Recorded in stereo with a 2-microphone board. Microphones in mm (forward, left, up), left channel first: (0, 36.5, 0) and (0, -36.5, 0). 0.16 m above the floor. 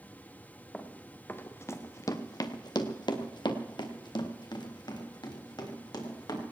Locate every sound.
0.7 s running footsteps: 15° left (ahead or behind), 1.9 m; by 6.4 s 70° left (ahead or behind), 4.5 m